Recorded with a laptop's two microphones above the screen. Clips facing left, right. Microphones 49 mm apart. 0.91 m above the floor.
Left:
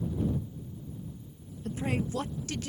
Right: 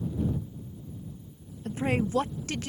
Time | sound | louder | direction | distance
1.6 | a woman speaking | right 4 dB | 40° right (ahead or behind) | ?